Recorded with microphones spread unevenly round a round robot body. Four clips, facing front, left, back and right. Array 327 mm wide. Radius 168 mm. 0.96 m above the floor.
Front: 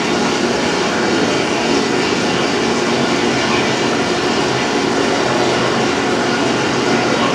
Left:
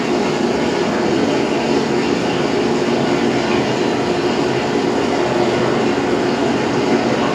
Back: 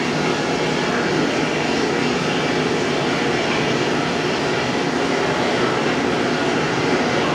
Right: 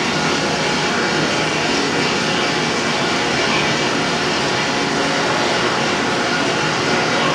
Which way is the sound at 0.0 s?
40° left.